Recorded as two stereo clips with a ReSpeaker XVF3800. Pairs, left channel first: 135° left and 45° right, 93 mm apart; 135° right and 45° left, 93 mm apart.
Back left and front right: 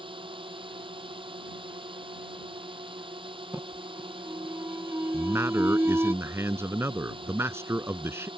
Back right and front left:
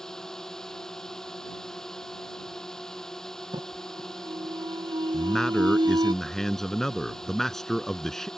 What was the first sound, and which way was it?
A drone, 50° right.